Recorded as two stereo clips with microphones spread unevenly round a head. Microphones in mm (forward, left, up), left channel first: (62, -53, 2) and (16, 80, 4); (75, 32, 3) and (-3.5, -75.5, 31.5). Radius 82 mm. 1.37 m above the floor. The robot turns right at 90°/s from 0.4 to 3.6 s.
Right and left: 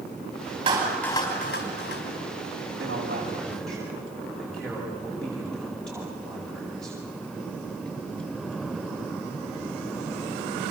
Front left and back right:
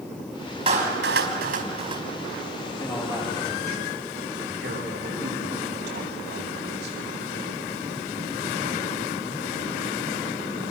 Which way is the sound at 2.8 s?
130° left.